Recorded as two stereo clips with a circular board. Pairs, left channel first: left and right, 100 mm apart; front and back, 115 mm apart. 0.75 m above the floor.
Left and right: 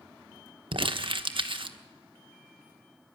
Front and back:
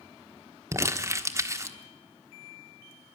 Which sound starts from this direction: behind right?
Crumpling, at 0.7 s.